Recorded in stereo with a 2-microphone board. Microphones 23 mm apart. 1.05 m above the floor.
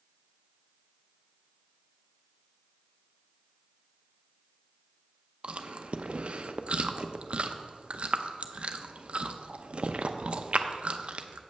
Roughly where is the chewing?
Right.